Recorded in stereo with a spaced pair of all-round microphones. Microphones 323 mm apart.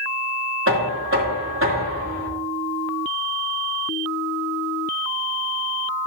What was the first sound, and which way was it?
Knocking, 40° right (ahead or behind).